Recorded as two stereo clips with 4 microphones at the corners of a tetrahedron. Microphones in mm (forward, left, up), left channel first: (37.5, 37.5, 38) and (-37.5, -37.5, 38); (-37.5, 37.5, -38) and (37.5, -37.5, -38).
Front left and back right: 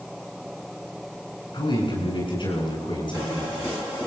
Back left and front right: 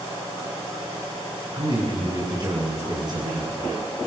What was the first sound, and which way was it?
A man speaking, 5° left.